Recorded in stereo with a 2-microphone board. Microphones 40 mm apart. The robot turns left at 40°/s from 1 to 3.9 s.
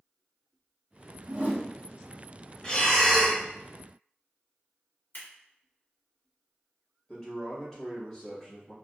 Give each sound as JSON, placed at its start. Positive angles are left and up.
{"t": 1.3, "sound": "a whoosh", "side_deg": -40, "distance_m": 0.9}
{"t": 2.6, "sound": "breathing", "azimuth_deg": 25, "distance_m": 0.8}
{"t": 5.1, "sound": "scissors", "side_deg": 60, "distance_m": 2.0}
{"t": 7.1, "sound": "a man speaking", "side_deg": 20, "distance_m": 1.2}